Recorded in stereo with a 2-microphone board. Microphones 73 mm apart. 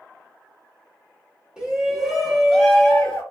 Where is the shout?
15° right (ahead or behind), 1.2 m; by 3.2 s 20° left (ahead or behind), 1.0 m.